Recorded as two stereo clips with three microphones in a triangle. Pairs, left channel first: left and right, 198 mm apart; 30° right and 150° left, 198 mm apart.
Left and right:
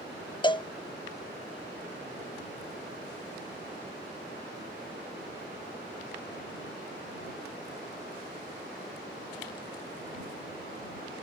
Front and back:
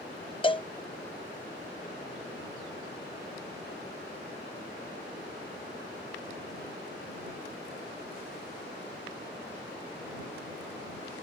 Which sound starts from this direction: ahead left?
A cowbell, at 0.4 s.